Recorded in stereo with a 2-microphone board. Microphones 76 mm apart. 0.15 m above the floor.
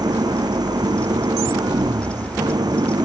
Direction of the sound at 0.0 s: 60° right (ahead or behind).